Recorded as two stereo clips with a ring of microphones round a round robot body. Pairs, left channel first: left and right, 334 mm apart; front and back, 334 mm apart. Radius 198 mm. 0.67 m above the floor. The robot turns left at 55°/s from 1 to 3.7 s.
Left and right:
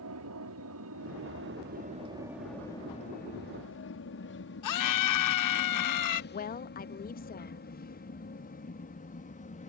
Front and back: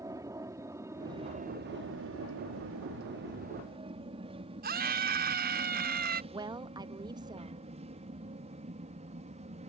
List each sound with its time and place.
0.0 s an aircraft: 105° right; by 9.7 s 130° left
4.6 s a scream: 115° left
6.3 s a woman speaking: 115° left